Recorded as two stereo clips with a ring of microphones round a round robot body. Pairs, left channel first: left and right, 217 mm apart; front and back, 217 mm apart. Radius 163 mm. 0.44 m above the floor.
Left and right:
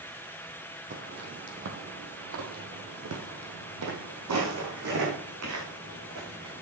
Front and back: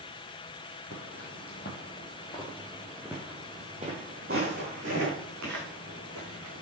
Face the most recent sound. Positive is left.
turn(degrees=-140)